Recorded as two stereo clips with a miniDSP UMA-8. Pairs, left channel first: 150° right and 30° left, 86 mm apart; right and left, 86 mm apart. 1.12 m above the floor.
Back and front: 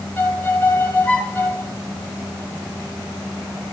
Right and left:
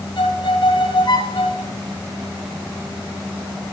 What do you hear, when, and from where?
0.2 s a violin: 80° right, 2.5 m